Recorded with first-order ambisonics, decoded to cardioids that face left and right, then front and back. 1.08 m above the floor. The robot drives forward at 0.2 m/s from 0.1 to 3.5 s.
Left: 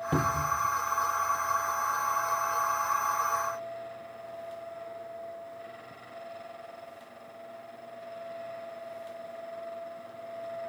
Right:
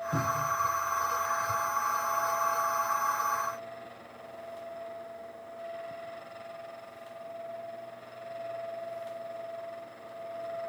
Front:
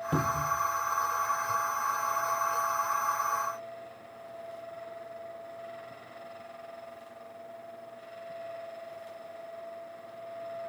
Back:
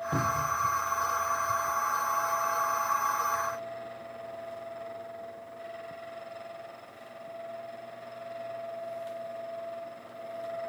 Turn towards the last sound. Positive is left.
turn(degrees=125)